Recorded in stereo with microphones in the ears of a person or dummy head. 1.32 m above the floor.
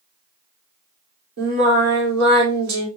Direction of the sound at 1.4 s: 70° right (ahead or behind).